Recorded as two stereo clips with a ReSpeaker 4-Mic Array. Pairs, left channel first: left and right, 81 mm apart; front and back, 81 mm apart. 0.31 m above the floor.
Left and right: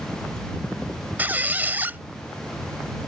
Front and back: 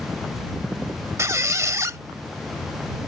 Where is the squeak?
145° right.